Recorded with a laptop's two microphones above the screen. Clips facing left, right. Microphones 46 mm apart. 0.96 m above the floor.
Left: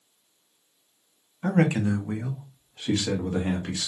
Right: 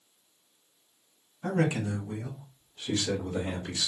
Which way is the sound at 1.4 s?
35° left (ahead or behind).